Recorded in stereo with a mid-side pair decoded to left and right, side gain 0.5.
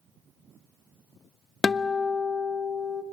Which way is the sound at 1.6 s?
35° left.